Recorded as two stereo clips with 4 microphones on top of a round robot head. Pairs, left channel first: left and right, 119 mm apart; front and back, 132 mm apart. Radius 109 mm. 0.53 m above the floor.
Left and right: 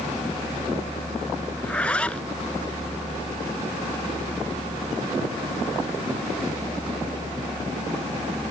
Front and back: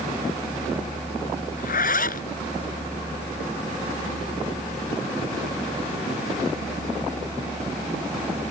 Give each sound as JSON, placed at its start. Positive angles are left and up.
{"t": 1.6, "sound": "a zipper", "azimuth_deg": 5}